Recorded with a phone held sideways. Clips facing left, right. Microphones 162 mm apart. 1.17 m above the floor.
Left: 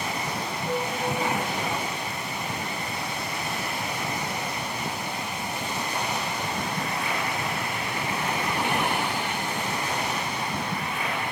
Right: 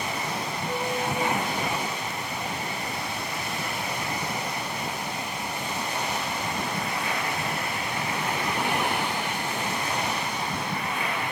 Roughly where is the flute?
Centre.